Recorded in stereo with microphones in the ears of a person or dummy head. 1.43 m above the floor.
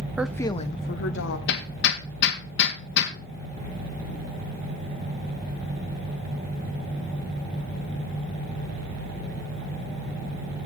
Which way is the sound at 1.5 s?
70° left (ahead or behind).